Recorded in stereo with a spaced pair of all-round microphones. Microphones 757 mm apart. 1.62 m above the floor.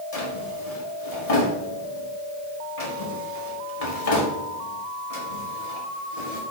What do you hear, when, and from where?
0.1 s a drawer: 50° left (ahead or behind), 1.9 m